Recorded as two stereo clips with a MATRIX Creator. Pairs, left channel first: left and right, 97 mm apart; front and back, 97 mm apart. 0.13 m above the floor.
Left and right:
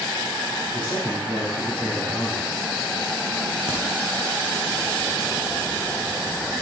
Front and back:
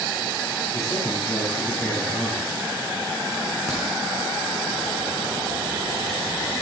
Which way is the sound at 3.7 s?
85° left.